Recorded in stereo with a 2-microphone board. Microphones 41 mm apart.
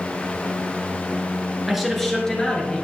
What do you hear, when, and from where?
1.7 s a man speaking: 5° right (ahead or behind), 1.5 m; by 2.8 s 25° left (ahead or behind), 2 m